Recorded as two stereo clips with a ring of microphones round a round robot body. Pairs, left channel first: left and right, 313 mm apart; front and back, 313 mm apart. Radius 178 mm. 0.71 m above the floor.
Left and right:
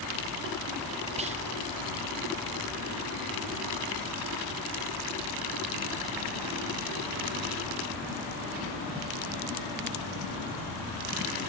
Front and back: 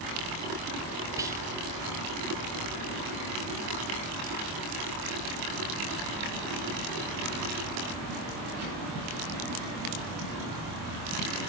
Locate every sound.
1.2 s whispering: 115° right, 0.6 m